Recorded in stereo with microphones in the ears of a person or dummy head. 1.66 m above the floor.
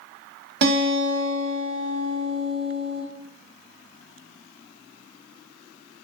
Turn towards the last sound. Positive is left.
turn(degrees=-60)  # may be behind; listen again after turning